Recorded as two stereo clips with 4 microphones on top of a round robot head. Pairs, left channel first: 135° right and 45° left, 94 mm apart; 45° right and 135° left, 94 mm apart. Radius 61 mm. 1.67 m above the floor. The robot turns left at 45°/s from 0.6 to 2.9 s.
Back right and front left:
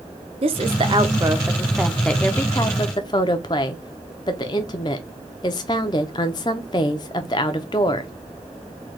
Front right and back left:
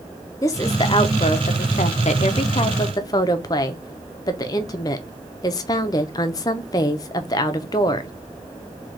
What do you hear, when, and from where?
0.4 s a woman speaking: 15° left, 0.6 m; by 8.1 s 90° right, 0.6 m